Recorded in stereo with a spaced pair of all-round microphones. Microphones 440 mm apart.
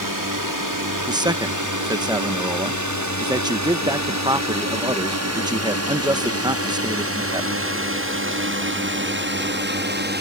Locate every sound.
0.0 s a drone: 45° right (ahead or behind); by 10.2 s 25° right (ahead or behind)
1.1 s a man speaking: 10° right (ahead or behind)